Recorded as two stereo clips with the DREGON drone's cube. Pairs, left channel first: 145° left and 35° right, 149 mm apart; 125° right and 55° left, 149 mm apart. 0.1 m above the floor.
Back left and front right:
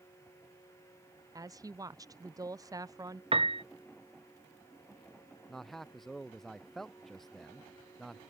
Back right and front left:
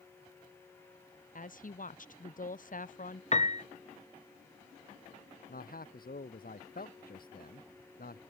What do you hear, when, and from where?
1.4 s a woman speaking: 100° right
3.3 s a piano: 85° right
5.5 s a man speaking: 125° right